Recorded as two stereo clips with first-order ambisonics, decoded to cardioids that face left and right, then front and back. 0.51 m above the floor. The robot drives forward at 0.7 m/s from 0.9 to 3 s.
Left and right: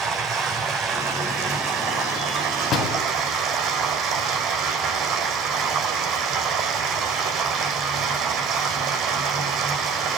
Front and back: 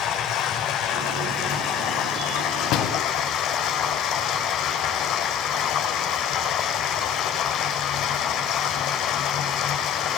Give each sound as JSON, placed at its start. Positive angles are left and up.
{"t": 0.0, "sound": "running water", "azimuth_deg": -30, "distance_m": 6.0}
{"t": 2.7, "sound": "a door slam", "azimuth_deg": 30, "distance_m": 2.5}